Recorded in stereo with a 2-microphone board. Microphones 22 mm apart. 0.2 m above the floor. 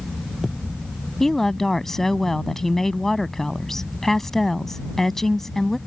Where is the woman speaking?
15° left (ahead or behind).